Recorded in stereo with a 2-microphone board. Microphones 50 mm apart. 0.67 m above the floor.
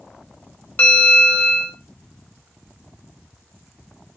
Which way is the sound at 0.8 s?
40° left (ahead or behind).